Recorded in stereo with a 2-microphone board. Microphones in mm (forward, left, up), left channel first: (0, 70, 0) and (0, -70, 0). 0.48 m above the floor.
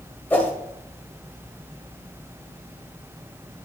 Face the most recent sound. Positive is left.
turn(degrees=15)  # may be behind; listen again after turning